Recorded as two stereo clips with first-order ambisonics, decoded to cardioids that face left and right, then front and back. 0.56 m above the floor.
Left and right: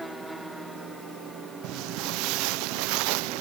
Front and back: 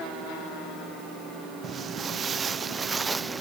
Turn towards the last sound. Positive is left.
turn(degrees=-100)